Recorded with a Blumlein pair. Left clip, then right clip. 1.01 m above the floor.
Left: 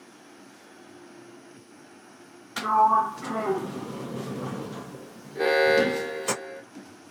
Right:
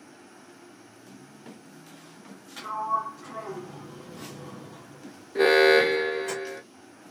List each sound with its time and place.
2.6 s a sliding door: 60° left, 0.5 m
5.3 s an alarm: 25° right, 0.6 m